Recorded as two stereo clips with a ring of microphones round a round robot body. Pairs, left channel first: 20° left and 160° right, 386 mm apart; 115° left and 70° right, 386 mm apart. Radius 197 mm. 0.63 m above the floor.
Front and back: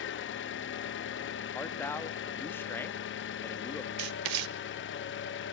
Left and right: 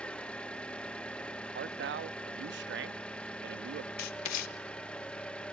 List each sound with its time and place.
0.0 s an engine running: 30° left, 0.7 m
1.6 s a man speaking: 55° right, 0.6 m
4.0 s writing: 165° left, 0.8 m